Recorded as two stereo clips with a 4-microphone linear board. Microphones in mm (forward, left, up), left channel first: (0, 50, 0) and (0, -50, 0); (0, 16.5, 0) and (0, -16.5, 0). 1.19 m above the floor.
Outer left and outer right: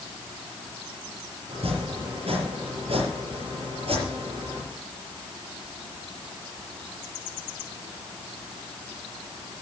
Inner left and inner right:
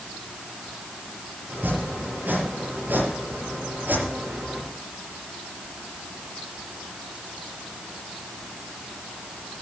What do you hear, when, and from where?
1.5 s chopping: 75° right (ahead or behind), 6.5 m